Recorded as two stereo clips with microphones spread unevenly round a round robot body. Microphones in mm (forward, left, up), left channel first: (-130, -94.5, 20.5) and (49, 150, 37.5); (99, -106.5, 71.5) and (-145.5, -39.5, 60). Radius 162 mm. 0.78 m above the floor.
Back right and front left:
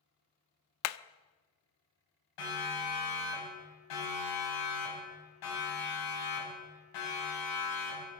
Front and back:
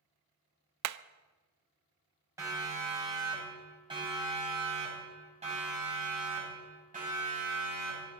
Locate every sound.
0.8 s hammering: 170° right, 0.6 m
2.4 s a siren: 115° right, 8 m; by 8.1 s 140° right, 9.5 m